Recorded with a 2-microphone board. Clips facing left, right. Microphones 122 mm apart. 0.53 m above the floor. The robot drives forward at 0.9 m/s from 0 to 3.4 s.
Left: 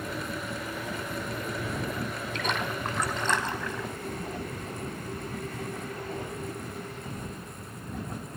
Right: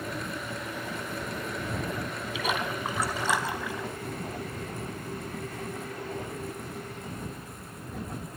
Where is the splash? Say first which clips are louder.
Right 1 dB; 5° right (ahead or behind), 4 m; by 3.9 s 10° right (ahead or behind), 3 m.